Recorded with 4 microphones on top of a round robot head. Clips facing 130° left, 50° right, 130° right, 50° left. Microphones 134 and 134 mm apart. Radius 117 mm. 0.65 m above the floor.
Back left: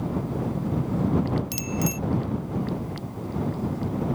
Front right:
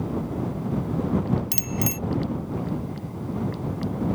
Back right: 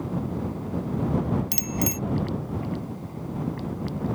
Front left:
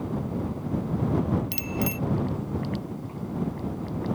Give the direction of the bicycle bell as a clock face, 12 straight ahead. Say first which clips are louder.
Back left 1 dB, back right 1 dB; 3 o'clock.